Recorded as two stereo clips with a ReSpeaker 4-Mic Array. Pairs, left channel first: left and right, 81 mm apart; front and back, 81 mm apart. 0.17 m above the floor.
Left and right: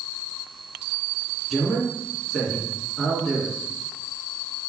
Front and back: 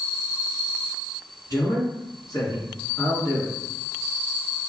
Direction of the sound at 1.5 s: Straight ahead.